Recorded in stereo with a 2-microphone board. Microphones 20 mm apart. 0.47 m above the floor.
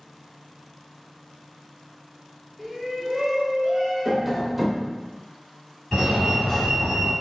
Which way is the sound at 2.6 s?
5° right (ahead or behind).